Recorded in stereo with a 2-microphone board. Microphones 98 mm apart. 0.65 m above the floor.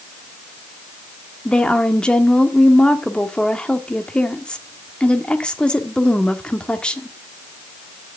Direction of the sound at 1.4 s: 10° left (ahead or behind).